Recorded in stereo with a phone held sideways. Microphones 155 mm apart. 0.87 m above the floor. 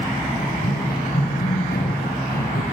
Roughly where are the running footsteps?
Left.